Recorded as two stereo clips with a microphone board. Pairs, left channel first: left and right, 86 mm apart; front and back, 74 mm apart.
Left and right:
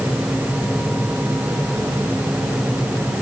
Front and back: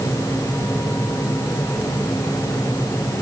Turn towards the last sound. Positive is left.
No sound to turn to.